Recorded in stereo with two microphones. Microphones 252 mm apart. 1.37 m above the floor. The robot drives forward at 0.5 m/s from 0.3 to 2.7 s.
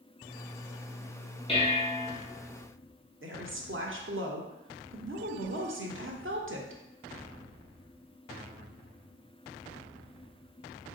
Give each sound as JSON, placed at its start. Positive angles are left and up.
{"t": 1.5, "sound": "dishes clattering", "side_deg": 20, "distance_m": 0.7}
{"t": 3.2, "sound": "a woman speaking", "side_deg": -50, "distance_m": 0.6}